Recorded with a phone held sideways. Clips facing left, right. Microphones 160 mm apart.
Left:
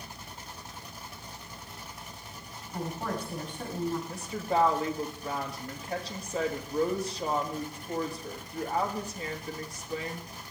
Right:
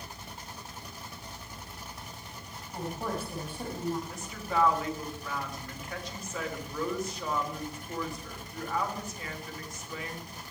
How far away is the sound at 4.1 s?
About 2.5 m.